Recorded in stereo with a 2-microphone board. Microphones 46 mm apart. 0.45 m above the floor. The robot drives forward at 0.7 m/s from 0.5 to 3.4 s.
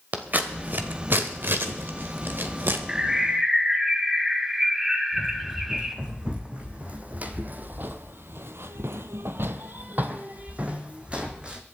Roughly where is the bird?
Centre.